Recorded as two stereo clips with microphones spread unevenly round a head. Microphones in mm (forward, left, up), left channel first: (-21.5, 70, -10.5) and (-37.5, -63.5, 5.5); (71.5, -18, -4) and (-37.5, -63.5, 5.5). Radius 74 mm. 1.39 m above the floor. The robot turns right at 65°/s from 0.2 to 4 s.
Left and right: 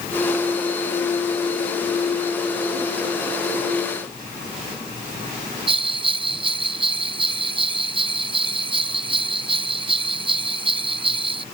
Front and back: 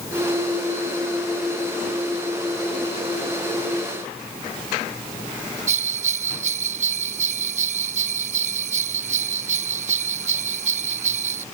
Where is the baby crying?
I don't hear a baby crying.